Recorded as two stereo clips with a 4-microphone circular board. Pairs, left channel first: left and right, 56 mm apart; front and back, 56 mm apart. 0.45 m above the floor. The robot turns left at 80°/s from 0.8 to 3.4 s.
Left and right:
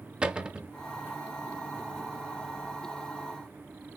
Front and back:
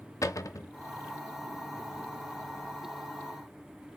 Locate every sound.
0.2 s a cupboard door: 20° right, 0.5 m